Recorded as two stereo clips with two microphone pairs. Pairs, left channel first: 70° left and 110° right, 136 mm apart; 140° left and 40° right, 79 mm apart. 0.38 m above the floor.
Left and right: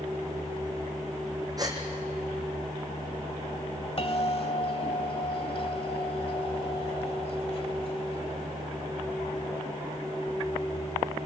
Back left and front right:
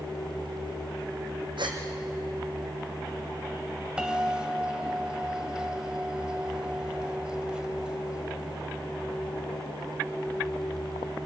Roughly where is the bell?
Ahead left.